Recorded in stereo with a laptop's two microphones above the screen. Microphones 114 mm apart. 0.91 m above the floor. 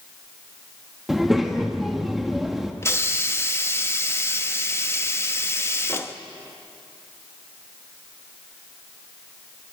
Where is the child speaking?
Centre (ahead or behind), 1.2 m.